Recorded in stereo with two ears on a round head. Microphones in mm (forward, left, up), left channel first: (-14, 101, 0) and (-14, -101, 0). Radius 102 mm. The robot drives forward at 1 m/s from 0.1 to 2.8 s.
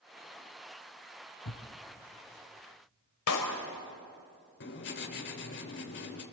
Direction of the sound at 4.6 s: 55° left (ahead or behind).